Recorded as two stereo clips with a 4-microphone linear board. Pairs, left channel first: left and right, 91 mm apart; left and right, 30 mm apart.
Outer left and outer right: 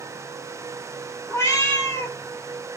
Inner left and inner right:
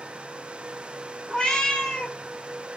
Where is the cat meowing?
35° left (ahead or behind), 0.6 m.